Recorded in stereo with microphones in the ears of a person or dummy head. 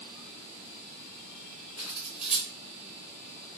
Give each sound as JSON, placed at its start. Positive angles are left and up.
{"t": 1.8, "sound": "cutlery clinking", "side_deg": 0, "distance_m": 1.0}